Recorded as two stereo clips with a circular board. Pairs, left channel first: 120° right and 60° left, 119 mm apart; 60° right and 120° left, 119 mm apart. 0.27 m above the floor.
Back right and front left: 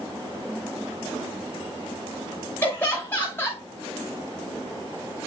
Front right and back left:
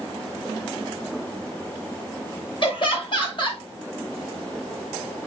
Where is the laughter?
55° right, 1.4 m.